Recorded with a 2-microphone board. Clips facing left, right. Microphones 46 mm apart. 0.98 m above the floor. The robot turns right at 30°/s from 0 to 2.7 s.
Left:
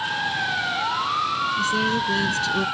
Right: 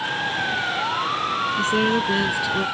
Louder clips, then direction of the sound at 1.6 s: Right 4 dB; 35° right.